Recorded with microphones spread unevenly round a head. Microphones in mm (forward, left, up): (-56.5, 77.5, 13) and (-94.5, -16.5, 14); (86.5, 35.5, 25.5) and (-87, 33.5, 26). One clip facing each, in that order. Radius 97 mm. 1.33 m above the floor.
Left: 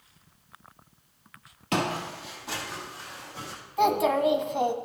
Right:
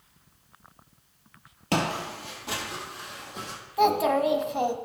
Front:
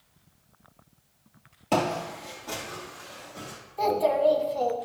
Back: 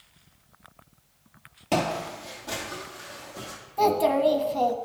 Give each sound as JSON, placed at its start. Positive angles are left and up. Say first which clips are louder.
{"t": 1.7, "sound": "footsteps", "louder": "right 1 dB, even", "azimuth_deg": -95, "distance_m": 1.6}
{"t": 3.8, "sound": "a child speaking", "louder": "right 1 dB, back 2 dB", "azimuth_deg": 160, "distance_m": 1.1}